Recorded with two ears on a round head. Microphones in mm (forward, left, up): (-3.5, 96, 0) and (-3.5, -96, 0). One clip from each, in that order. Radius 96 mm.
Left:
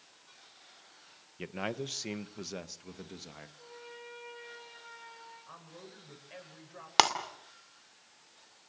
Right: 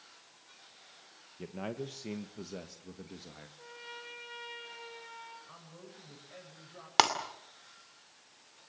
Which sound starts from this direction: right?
A trumpet, at 3.6 s.